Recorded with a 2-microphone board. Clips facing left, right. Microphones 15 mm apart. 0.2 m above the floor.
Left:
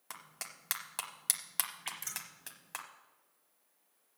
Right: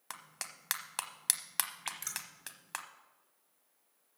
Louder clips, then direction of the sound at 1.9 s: Right 1 dB; 30° right (ahead or behind).